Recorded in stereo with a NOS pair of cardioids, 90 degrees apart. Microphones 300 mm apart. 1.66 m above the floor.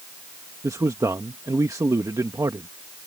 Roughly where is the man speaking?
Ahead.